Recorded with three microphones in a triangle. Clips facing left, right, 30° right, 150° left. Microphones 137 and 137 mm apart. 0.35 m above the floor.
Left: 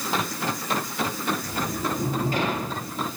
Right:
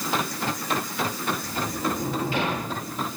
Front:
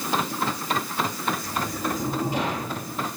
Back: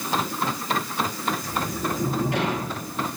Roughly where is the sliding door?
Behind left.